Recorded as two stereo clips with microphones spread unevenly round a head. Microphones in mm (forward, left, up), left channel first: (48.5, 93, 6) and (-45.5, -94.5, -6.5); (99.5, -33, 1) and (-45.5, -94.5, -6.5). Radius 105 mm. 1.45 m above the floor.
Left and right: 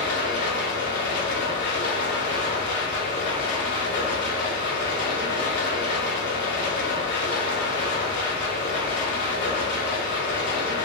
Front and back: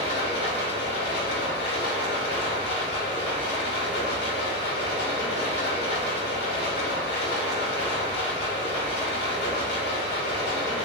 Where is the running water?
30° left, 1.7 m.